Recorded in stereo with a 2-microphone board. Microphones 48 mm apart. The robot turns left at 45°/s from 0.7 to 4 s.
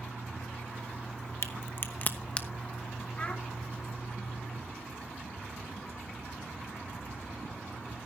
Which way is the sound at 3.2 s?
20° left (ahead or behind).